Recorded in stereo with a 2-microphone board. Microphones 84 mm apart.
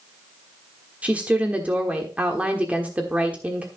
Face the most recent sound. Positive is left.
turn(degrees=-20)  # may be behind; listen again after turning